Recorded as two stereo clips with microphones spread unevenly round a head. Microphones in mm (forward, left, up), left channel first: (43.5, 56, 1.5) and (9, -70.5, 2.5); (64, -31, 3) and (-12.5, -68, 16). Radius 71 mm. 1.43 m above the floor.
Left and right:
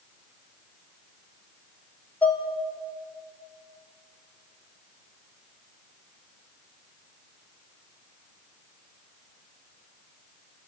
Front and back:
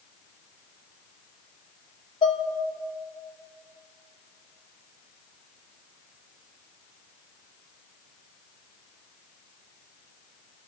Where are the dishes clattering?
5° right, 2.5 m.